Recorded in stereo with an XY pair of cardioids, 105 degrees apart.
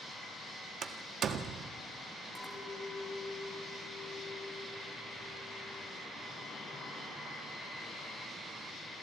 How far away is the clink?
About 4 m.